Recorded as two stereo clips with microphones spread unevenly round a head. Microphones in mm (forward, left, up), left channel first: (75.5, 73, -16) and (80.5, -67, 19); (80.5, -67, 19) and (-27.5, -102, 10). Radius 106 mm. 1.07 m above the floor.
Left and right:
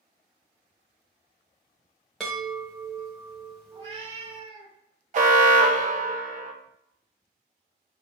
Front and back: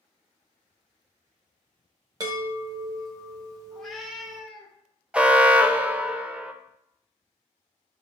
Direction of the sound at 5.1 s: 95° right.